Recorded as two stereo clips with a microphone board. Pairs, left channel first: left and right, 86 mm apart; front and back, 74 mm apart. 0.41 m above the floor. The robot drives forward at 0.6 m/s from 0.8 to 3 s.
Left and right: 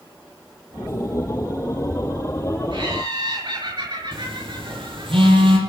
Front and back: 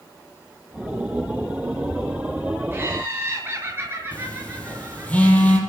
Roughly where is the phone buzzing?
Right.